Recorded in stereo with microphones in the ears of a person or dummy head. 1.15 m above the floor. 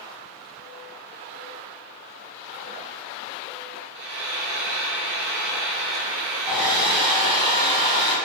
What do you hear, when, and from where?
4.0 s frying: 60° right (ahead or behind), 0.9 m
6.5 s a hair dryer: 5° left (ahead or behind), 1.6 m